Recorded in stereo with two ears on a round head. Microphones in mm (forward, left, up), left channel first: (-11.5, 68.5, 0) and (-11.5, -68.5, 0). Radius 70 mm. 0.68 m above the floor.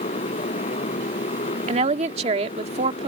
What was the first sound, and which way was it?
A motorcycle, 45° left (ahead or behind).